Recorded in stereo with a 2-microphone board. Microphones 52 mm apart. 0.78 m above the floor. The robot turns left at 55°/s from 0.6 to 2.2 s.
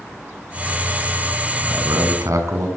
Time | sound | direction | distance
1.6 | a man speaking | 60° right | 6 m